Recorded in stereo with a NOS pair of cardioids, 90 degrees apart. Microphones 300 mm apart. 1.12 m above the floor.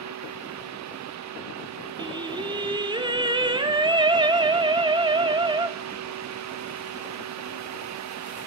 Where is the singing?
15° right, 2.5 m.